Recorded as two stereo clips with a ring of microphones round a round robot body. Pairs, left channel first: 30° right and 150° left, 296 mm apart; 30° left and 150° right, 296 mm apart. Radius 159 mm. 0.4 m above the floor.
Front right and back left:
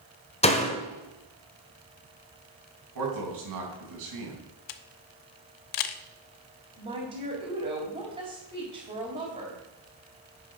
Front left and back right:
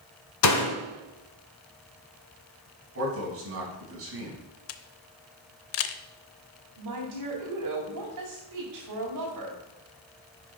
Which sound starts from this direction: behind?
A man speaking, at 3.0 s.